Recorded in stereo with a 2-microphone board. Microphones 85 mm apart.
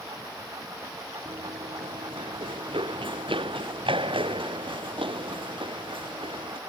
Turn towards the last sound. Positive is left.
turn(degrees=-85)